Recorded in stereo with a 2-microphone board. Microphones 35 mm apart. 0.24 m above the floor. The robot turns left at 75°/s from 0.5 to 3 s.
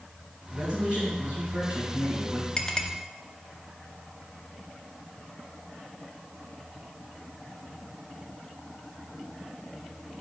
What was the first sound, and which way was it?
A man speaking, 20° right.